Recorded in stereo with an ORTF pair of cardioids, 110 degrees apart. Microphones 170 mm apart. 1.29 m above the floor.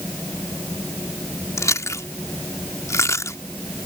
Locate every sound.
0.0 s a fan: 10° left
1.6 s chewing: 20° left